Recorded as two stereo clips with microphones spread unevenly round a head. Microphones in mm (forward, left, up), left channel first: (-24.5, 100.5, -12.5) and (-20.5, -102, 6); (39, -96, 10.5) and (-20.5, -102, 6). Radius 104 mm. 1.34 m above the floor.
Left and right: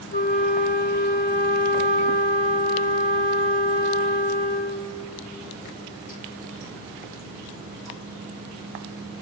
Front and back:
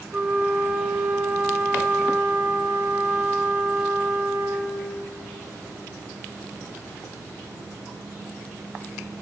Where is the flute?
100° left, 1.2 m.